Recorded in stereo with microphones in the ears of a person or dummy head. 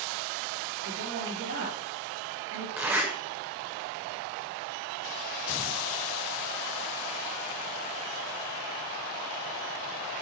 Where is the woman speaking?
55° right (ahead or behind), 4 m.